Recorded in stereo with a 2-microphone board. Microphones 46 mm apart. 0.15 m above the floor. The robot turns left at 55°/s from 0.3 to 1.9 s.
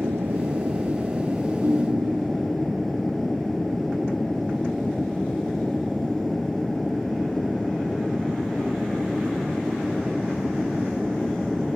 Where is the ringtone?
60° right (ahead or behind); by 2.5 s 75° right (ahead or behind).